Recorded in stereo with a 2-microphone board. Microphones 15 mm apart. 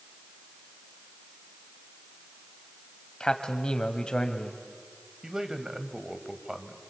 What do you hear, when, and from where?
3.2 s a man speaking: 55° left (ahead or behind), 1.8 m
5.2 s a man speaking: 35° right (ahead or behind), 1.9 m